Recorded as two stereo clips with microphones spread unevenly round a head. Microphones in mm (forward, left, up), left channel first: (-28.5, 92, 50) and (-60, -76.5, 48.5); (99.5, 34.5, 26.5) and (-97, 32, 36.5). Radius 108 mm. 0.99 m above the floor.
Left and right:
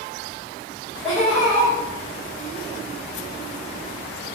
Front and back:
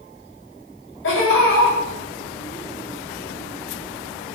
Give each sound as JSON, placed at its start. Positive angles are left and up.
{"t": 1.0, "sound": "laughter", "azimuth_deg": -15, "distance_m": 2.0}